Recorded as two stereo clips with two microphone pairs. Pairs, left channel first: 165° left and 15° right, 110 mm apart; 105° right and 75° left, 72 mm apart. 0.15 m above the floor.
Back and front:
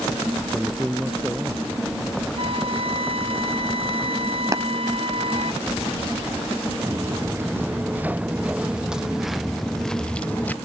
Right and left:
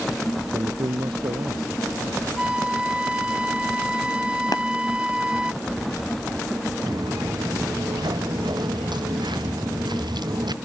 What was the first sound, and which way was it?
A man speaking, 70° left.